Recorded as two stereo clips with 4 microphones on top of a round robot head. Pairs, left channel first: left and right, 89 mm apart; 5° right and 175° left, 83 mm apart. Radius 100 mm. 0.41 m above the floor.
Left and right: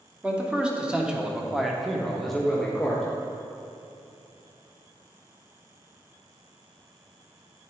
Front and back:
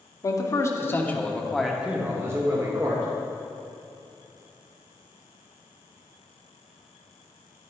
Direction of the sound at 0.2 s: 15° right.